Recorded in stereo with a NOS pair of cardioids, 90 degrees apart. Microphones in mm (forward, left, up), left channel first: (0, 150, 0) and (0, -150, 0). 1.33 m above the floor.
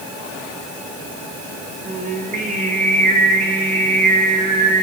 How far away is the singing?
About 2.5 m.